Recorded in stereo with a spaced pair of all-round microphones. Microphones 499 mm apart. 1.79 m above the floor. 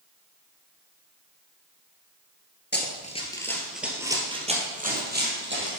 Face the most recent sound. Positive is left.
turn(degrees=-25)  # may be behind; listen again after turning